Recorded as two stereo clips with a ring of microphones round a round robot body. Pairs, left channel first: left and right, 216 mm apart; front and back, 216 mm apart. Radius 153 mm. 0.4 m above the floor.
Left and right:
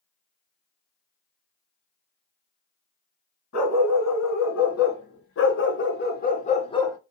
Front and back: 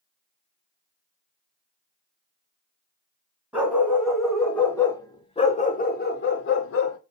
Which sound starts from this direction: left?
A dog barking, at 3.5 s.